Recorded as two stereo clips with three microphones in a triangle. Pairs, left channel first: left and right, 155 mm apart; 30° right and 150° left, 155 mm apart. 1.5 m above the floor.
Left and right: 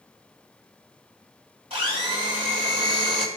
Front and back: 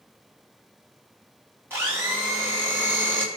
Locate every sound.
1.7 s a blender: 135° right, 3.5 m